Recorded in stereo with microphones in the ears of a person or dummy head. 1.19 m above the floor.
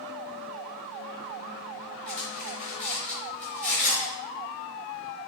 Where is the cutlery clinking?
5° left (ahead or behind), 3 m.